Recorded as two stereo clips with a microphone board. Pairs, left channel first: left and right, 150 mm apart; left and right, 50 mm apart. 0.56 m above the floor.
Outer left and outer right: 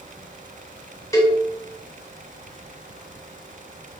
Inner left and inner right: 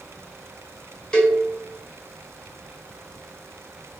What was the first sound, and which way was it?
A cowbell, 20° left (ahead or behind).